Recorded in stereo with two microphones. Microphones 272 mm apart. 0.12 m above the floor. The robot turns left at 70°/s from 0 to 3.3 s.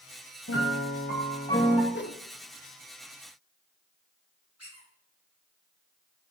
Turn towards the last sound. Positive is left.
turn(degrees=70)  # may be behind; listen again after turning